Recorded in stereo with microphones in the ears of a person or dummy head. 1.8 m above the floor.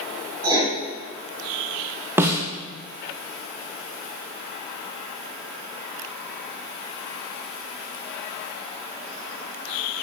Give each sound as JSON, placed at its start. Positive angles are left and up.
{"t": 0.4, "sound": "writing", "side_deg": -20, "distance_m": 3.0}
{"t": 2.2, "sound": "a snare drum", "side_deg": -15, "distance_m": 0.6}